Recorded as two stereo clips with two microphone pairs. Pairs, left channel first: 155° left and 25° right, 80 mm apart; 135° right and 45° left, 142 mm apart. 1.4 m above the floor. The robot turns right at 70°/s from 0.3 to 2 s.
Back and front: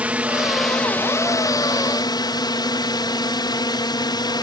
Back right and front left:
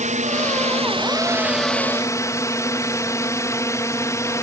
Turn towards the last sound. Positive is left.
turn(degrees=160)